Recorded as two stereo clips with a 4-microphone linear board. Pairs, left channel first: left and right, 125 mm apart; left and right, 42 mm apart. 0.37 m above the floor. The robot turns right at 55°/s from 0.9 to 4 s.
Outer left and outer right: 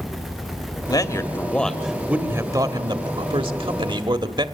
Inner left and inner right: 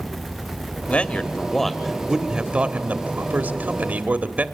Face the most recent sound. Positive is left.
turn(degrees=-60)